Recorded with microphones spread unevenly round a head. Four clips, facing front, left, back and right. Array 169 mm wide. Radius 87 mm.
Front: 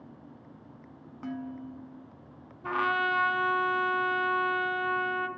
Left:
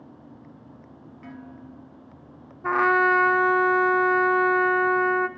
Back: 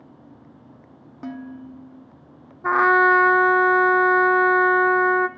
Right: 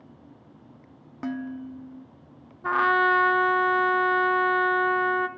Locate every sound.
1.2 s dishes clattering: 130° right, 1.1 m
2.6 s a trumpet: 165° left, 0.5 m